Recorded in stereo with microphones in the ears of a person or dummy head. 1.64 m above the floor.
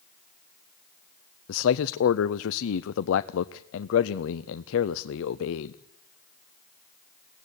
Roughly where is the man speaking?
Left.